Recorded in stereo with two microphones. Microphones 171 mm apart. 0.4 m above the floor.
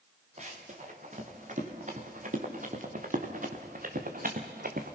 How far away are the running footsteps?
About 4.5 m.